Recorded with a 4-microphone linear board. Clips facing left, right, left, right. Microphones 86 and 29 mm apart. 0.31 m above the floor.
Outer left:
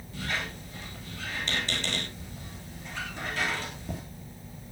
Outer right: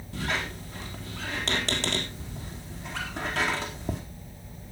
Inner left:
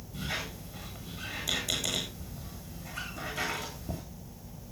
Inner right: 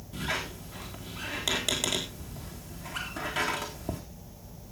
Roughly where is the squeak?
Right.